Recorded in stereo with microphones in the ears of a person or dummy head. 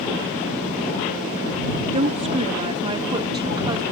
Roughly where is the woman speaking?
Right.